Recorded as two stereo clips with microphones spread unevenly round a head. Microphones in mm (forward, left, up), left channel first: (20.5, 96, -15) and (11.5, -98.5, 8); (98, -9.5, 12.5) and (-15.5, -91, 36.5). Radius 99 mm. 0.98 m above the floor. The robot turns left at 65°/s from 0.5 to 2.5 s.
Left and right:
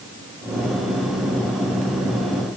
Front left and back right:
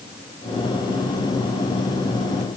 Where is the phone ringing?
I don't hear a phone ringing.